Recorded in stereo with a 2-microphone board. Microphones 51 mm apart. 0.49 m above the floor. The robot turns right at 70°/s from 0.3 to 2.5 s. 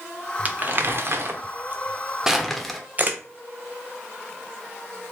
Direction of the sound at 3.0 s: 35° right (ahead or behind).